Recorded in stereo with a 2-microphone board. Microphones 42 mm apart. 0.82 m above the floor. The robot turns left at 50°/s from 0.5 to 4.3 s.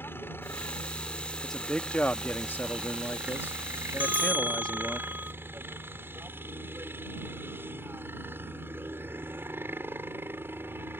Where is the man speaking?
170° left; by 5.0 s 30° left.